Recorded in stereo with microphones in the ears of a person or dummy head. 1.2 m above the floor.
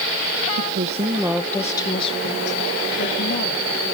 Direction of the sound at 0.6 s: 50° right (ahead or behind).